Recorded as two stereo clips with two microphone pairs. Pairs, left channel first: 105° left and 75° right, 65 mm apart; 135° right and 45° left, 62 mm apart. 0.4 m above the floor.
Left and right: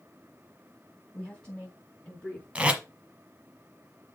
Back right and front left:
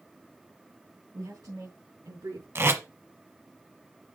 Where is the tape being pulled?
5° right, 1.3 m.